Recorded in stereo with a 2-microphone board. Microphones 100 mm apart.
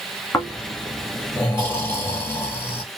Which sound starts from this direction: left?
Snoring, at 0.3 s.